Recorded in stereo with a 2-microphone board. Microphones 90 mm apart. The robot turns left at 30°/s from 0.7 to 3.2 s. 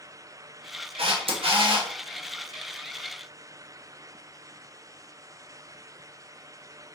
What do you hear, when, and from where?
1.0 s a camera shutter: 80° right, 1.1 m; by 1.9 s 60° right (ahead or behind), 1.1 m